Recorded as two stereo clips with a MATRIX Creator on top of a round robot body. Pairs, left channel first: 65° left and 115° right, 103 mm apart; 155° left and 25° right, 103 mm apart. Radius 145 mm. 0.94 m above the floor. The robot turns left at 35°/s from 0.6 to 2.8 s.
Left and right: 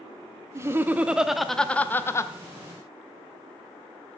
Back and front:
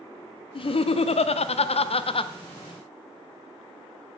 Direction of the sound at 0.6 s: 175° right.